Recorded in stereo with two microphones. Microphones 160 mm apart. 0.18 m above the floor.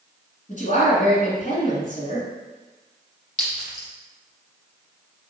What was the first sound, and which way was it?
A woman speaking, 50° left (ahead or behind).